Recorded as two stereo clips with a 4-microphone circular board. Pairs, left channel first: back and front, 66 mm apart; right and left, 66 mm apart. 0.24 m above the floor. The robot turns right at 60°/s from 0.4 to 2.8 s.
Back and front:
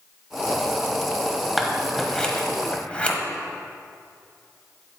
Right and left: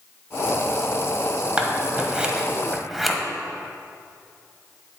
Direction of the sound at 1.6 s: 95° left.